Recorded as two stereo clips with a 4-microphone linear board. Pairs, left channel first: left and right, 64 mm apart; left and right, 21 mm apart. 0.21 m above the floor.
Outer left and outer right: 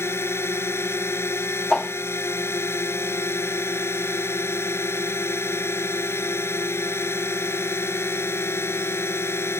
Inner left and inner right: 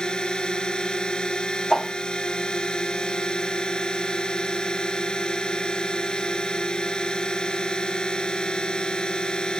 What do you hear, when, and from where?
0.0 s a drone: 45° left (ahead or behind)
1.7 s a whoosh: 5° left (ahead or behind)